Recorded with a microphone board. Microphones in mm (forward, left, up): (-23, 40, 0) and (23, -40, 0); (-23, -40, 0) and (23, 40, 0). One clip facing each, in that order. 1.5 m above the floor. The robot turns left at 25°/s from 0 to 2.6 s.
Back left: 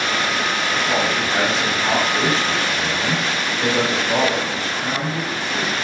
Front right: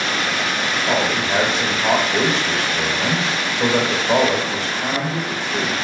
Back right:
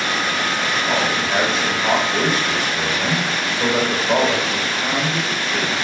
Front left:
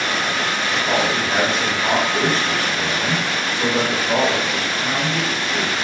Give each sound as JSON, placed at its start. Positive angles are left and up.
{"t": 0.9, "sound": "a man speaking", "azimuth_deg": -10, "distance_m": 0.9}